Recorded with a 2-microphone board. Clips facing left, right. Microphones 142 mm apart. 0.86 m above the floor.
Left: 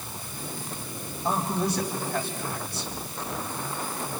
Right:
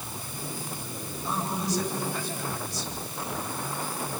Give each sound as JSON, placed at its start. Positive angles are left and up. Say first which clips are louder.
{"t": 1.2, "sound": "a man speaking", "louder": "left 4 dB", "side_deg": 60, "distance_m": 4.0}